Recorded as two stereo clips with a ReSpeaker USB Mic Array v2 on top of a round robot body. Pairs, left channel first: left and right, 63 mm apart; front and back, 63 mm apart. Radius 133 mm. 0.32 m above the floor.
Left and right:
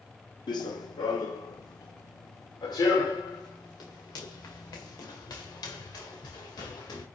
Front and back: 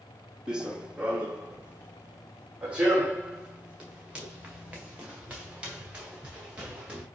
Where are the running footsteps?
100° left, 0.9 m; by 7.0 s 110° left, 4.5 m.